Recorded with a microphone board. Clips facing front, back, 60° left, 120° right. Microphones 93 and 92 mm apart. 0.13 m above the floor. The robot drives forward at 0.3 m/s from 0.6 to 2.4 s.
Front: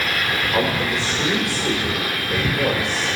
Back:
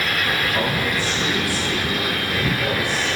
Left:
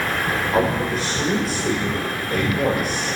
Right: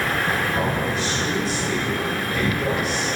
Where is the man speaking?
25° left, 5.5 m; by 3.1 s 30° left, 5 m.